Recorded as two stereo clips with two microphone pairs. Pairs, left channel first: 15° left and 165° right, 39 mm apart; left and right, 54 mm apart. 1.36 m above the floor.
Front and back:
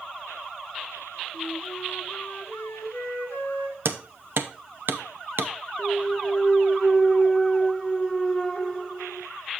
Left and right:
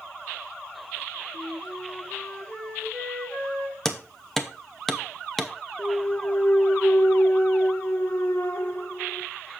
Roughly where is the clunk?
Left.